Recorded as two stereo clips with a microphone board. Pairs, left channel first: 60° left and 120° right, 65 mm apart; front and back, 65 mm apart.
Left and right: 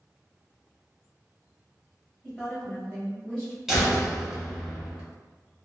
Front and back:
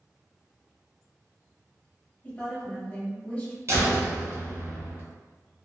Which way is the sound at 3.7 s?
160° left.